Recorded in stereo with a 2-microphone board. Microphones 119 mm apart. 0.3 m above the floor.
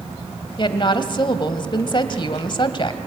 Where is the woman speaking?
45° left (ahead or behind), 1.4 m.